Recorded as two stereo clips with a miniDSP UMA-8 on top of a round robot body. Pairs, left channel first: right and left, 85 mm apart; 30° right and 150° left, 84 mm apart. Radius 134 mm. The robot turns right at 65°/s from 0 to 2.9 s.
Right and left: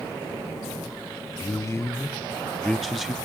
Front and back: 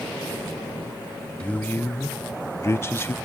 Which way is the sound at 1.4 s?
95° right.